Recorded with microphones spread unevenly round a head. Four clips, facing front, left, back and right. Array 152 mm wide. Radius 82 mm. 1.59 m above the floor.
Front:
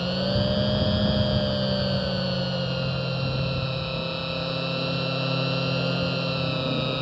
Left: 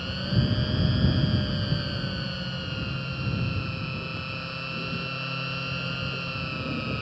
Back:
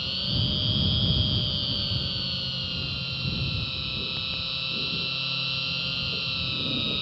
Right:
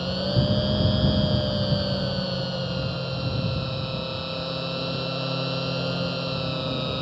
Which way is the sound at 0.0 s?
35° right.